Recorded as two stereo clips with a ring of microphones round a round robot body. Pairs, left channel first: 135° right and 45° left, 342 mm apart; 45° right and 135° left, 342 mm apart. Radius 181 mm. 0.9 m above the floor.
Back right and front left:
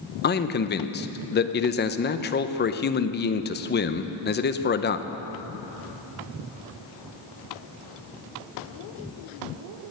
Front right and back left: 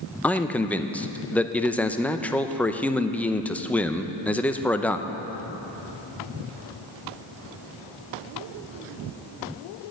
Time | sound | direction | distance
0.2 | a man speaking | 125° right | 0.7 m